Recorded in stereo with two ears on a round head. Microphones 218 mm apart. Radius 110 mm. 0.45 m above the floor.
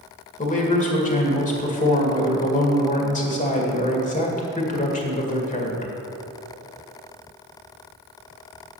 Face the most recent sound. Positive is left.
turn(degrees=30)  # may be behind; listen again after turning